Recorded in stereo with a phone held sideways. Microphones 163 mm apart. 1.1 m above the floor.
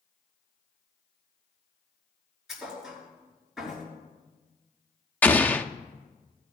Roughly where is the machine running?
No machine running in this recording.